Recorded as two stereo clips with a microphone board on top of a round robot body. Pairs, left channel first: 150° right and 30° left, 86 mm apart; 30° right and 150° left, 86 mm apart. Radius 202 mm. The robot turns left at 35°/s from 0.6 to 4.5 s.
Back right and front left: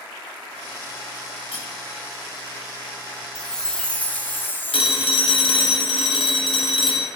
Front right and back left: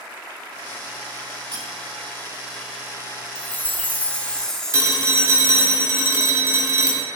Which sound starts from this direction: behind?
Cutlery clinking, at 1.5 s.